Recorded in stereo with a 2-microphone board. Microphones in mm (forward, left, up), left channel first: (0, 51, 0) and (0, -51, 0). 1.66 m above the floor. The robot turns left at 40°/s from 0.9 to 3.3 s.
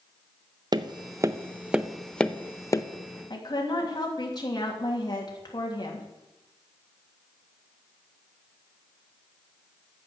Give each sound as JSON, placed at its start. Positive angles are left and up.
{"t": 0.7, "sound": "tapping", "side_deg": -45, "distance_m": 0.6}
{"t": 3.3, "sound": "a woman speaking", "side_deg": 40, "distance_m": 3.0}